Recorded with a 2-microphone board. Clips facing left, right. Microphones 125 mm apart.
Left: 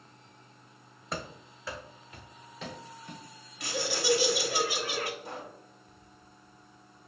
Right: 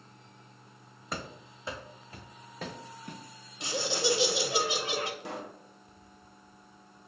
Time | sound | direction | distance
1.1 | running footsteps | centre (ahead or behind) | 0.8 m
3.6 | laughter | 20° right (ahead or behind) | 1.0 m
5.2 | a pop | 70° right (ahead or behind) | 0.7 m